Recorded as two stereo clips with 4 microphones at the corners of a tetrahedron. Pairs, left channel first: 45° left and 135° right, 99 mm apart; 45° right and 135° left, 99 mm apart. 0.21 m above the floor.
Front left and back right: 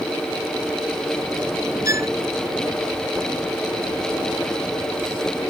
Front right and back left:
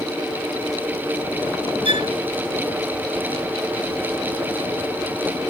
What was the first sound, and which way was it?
A violin, 165° left.